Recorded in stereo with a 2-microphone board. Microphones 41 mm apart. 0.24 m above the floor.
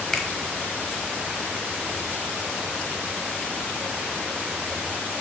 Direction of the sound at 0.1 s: 5° left (ahead or behind).